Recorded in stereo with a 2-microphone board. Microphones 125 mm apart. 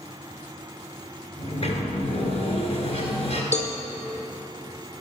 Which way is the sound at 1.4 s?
50° left (ahead or behind).